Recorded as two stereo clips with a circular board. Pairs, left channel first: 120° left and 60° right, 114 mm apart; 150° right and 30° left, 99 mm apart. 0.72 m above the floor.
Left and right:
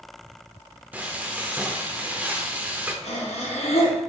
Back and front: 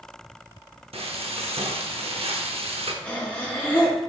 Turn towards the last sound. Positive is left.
turn(degrees=130)